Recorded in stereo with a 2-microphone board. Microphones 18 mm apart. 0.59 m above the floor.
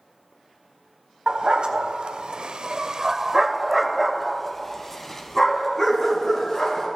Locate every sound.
1.3 s a dog barking: 65° right (ahead or behind), 1.1 m; by 6.9 s 25° left (ahead or behind), 2.5 m